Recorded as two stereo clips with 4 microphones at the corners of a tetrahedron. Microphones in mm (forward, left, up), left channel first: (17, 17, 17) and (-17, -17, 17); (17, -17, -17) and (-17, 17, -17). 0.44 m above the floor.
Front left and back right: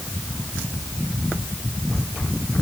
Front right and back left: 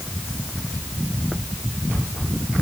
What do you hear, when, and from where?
Only background noise.